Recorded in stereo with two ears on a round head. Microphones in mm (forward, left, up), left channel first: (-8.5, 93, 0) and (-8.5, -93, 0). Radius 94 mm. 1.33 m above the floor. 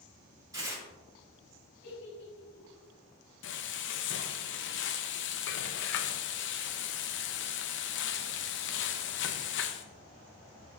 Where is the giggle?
60° left (ahead or behind), 3.5 m.